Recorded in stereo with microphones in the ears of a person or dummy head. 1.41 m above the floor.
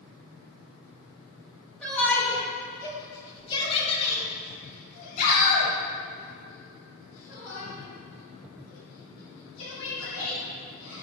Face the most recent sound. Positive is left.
turn(degrees=85)